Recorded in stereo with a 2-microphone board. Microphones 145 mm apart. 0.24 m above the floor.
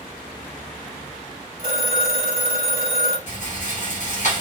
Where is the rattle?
60° left (ahead or behind), 1.9 m.